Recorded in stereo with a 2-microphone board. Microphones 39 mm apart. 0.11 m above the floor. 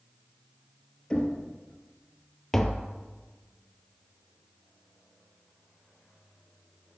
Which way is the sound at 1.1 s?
20° left (ahead or behind).